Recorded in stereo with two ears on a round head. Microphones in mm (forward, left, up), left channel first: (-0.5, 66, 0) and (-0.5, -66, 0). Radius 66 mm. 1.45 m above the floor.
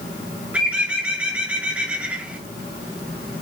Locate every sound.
0.5 s a bird: 10° right (ahead or behind), 1.4 m